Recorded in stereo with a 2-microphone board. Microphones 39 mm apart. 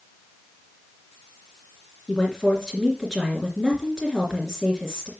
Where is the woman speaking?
15° left (ahead or behind), 2.5 m.